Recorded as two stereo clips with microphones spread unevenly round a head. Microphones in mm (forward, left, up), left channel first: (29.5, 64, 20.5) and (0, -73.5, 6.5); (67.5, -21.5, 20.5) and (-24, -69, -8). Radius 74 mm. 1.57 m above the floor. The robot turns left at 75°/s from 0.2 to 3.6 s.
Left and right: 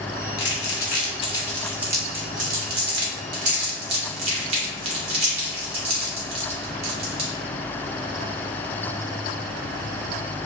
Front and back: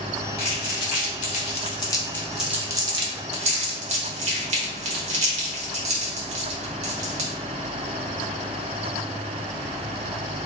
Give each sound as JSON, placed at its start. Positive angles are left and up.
{"t": 0.4, "sound": "crumpling", "azimuth_deg": 85, "distance_m": 0.9}